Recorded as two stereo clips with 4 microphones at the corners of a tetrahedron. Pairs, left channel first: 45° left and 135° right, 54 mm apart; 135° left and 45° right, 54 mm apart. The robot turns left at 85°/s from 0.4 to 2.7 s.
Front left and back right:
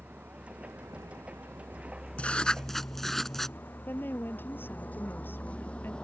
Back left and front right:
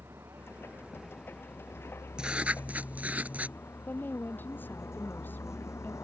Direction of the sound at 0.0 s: 80° right.